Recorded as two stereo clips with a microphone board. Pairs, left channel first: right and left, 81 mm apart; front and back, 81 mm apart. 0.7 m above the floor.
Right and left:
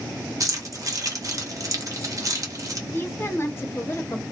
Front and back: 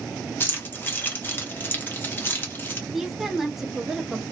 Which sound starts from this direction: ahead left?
Keys jangling, at 0.4 s.